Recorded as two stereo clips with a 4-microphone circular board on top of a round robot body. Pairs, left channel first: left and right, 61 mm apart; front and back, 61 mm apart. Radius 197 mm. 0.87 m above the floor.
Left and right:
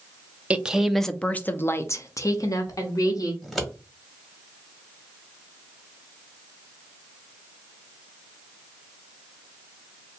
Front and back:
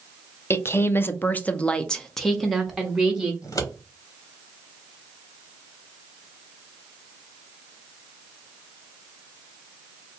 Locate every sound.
0.5 s a woman speaking: 25° right, 0.8 m; by 3.3 s 95° left, 1.4 m
3.4 s scissors: straight ahead, 1.7 m